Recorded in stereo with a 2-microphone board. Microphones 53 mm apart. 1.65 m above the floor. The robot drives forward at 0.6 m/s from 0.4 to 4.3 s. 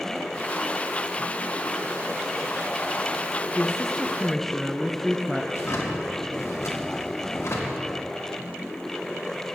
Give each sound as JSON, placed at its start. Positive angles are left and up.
{"t": 3.5, "sound": "a woman speaking", "side_deg": 0, "distance_m": 0.9}
{"t": 5.5, "sound": "a drawer", "side_deg": 55, "distance_m": 1.6}